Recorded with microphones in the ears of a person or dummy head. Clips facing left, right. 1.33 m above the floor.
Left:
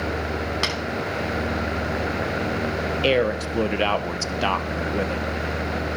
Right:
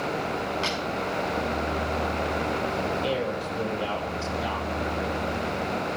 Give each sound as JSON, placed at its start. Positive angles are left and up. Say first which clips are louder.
{"t": 0.6, "sound": "tapping", "louder": "left 2 dB", "side_deg": 75, "distance_m": 5.5}
{"t": 3.0, "sound": "a man speaking", "louder": "left 7 dB", "side_deg": 75, "distance_m": 0.9}